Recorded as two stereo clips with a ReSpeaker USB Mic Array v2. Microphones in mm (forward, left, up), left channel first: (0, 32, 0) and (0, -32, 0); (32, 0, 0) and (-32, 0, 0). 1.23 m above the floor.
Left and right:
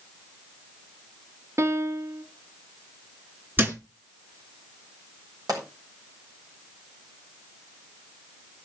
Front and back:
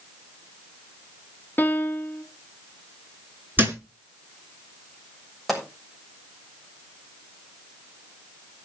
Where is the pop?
90° right, 7 m.